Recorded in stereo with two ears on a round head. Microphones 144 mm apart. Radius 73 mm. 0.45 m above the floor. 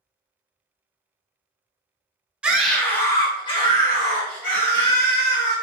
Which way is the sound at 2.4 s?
10° right (ahead or behind).